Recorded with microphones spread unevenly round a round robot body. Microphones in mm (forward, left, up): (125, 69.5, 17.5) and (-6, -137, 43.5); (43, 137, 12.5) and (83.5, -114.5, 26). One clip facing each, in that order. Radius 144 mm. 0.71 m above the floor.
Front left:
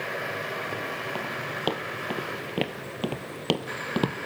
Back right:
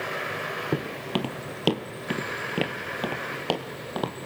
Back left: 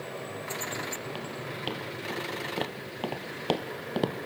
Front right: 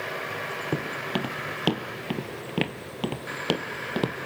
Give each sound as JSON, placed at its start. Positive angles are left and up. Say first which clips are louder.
{"t": 0.7, "sound": "footsteps", "louder": "back right 6 dB, front right 7 dB", "azimuth_deg": -100, "distance_m": 1.7}